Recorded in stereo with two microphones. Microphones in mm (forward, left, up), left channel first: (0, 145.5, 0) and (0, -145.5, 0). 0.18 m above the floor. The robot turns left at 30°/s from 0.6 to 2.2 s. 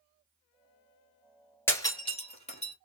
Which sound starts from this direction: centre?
Breaking glass, at 1.7 s.